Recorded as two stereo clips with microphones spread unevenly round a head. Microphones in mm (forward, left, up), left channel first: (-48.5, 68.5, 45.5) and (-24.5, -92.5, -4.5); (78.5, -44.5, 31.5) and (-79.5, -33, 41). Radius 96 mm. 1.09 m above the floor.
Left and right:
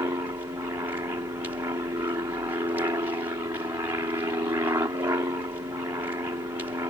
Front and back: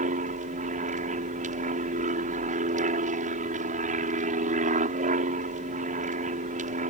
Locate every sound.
0.0 s an aircraft: 150° right